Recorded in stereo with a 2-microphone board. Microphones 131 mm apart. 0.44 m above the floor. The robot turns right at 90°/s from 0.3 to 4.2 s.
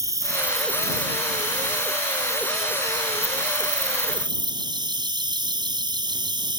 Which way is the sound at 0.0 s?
25° right.